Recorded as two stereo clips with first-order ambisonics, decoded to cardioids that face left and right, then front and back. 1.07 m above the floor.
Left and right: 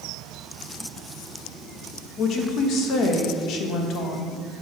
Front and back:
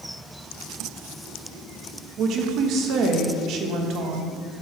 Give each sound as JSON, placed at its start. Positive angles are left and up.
{"t": 2.2, "sound": "a woman speaking", "azimuth_deg": 135, "distance_m": 1.2}